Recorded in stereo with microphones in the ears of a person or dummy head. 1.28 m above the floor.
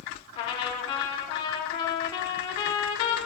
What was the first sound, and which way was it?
A trumpet, 35° left (ahead or behind).